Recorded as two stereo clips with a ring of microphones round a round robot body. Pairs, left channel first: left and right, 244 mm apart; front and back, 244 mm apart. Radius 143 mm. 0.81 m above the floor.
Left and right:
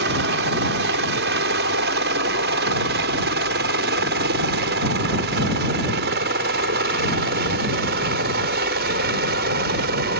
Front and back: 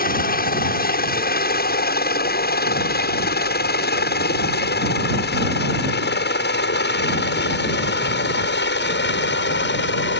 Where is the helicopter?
45° right; by 10.2 s 40° right.